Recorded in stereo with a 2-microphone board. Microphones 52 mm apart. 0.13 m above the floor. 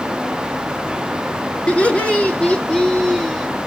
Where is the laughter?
25° left (ahead or behind), 1.5 m; by 3.5 s 10° left (ahead or behind), 1.2 m.